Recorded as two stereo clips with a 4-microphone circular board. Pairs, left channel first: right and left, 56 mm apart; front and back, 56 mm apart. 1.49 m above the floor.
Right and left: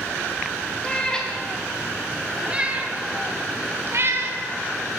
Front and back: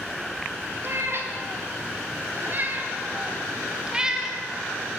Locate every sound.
0.8 s a cat meowing: 160° right, 2 m; by 5.0 s 95° left, 2.5 m